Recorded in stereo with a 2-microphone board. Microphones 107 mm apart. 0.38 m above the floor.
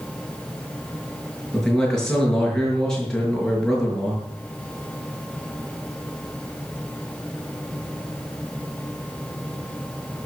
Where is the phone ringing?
No phone ringing in this recording.